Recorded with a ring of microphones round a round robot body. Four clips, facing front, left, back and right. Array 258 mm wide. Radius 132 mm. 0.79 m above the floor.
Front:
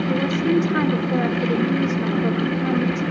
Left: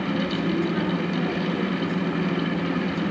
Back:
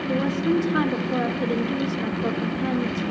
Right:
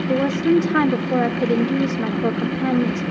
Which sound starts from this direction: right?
A woman speaking, at 0.1 s.